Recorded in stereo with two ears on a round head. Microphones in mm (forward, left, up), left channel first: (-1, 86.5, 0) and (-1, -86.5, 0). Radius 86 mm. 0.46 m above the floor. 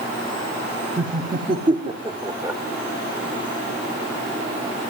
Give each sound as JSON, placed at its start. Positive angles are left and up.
{"t": 1.0, "sound": "laughter", "side_deg": -25, "distance_m": 1.7}